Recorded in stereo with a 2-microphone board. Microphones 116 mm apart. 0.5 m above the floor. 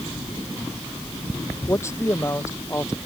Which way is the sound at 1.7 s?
25° left (ahead or behind).